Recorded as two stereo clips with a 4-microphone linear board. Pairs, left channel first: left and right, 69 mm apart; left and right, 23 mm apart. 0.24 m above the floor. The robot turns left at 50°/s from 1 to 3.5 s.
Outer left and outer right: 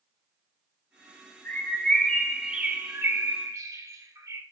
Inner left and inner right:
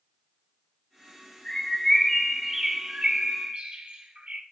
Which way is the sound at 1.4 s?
35° left.